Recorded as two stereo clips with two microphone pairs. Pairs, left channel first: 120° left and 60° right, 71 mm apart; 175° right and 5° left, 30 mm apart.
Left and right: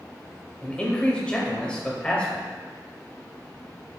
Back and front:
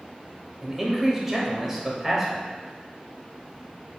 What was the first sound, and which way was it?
A man speaking, 70° left.